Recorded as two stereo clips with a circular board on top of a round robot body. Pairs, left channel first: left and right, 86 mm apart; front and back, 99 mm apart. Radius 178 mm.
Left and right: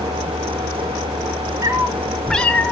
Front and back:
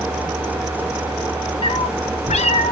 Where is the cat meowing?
40° right, 0.6 m; by 2.7 s 20° left, 1.0 m.